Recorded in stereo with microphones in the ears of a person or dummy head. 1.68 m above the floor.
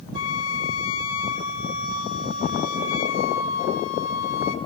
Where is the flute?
75° left (ahead or behind), 2.5 m.